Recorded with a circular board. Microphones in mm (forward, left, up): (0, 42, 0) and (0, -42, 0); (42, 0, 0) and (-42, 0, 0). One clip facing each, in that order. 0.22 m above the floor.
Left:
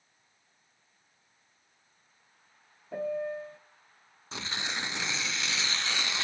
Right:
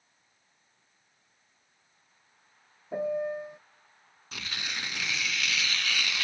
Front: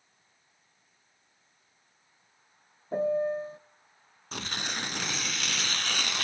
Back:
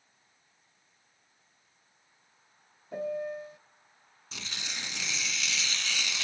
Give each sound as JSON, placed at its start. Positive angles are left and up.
{"t": 2.9, "sound": "a piano", "azimuth_deg": -25, "distance_m": 0.6}
{"t": 4.3, "sound": "tearing paper", "azimuth_deg": 30, "distance_m": 1.2}